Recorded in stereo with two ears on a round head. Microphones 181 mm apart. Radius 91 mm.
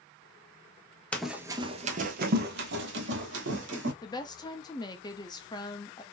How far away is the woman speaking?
About 0.5 m.